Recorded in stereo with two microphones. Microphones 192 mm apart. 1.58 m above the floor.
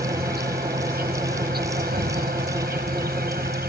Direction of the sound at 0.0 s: 55° right (ahead or behind).